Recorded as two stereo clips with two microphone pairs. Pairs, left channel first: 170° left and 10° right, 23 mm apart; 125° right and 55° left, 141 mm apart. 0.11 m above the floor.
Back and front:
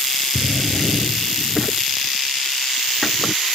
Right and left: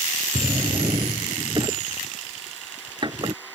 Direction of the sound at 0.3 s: 85° left.